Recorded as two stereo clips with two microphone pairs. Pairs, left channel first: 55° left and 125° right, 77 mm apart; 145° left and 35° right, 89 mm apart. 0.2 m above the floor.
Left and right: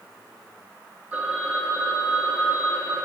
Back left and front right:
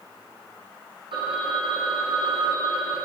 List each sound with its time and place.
1.1 s a phone ringing: 55° right, 5.5 m